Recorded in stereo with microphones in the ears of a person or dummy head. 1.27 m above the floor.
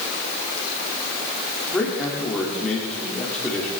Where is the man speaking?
5° left (ahead or behind), 2.5 m.